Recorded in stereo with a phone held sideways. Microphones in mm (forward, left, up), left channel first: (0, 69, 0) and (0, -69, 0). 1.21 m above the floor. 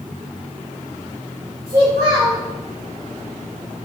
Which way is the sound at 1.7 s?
85° right.